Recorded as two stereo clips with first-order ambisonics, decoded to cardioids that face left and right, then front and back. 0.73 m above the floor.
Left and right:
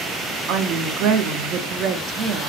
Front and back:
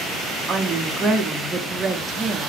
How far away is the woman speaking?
About 0.6 m.